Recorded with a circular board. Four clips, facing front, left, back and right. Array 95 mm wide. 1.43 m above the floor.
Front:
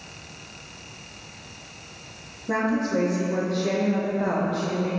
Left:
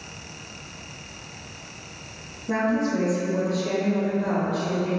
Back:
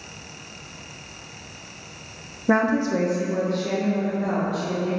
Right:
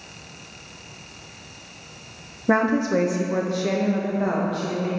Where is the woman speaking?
130° right, 0.9 m; by 4.9 s 55° right, 2.0 m.